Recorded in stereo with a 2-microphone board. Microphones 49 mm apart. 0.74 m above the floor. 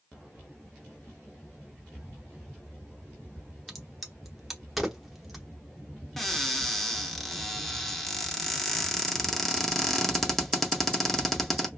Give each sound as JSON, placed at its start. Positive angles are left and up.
{"t": 3.7, "sound": "a crack", "side_deg": 0, "distance_m": 0.7}
{"t": 6.2, "sound": "a cupboard door", "side_deg": 5, "distance_m": 0.6}